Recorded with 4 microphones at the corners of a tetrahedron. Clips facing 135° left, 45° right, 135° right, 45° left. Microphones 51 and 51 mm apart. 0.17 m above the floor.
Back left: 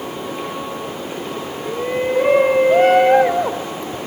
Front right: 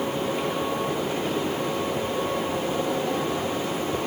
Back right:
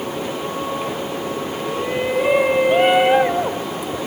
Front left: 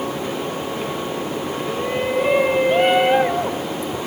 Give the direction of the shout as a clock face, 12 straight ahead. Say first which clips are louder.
Back left 6 dB, back right 1 dB; 7 o'clock.